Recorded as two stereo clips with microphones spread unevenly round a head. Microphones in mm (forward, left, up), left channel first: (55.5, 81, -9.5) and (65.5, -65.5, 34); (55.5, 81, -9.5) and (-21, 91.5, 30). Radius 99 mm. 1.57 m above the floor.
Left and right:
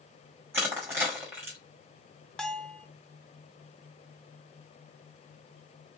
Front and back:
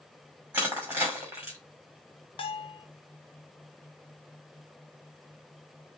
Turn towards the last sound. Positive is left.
turn(degrees=-10)